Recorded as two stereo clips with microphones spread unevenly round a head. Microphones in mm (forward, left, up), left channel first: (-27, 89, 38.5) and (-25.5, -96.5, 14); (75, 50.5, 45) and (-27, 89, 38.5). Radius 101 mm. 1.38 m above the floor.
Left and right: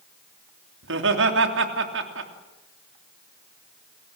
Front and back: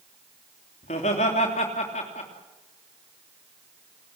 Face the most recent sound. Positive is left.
turn(degrees=-65)